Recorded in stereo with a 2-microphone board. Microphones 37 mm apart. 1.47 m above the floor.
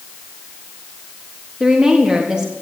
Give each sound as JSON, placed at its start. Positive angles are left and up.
{"t": 1.6, "sound": "a woman speaking", "side_deg": -25, "distance_m": 3.0}